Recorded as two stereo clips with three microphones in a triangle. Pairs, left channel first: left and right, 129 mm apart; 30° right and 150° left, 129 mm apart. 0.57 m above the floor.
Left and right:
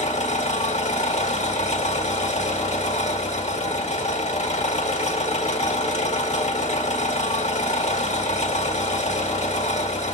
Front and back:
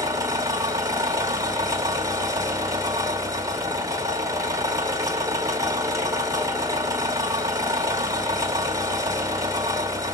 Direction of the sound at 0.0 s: 90° left.